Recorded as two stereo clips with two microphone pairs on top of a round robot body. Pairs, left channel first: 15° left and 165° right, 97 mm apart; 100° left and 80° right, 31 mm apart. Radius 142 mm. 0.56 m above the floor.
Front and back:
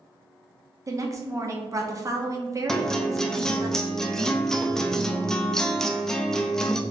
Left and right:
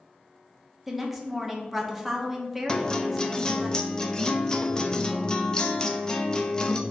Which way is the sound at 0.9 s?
170° right.